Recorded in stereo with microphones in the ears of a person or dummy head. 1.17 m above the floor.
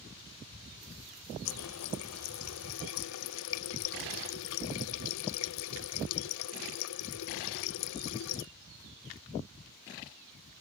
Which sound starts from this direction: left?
A running tap, at 1.4 s.